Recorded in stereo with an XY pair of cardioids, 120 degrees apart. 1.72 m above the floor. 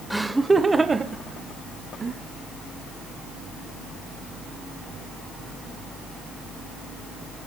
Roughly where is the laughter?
Ahead.